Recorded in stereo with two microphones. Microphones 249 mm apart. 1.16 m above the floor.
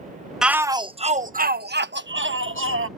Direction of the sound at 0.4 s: Centre (ahead or behind).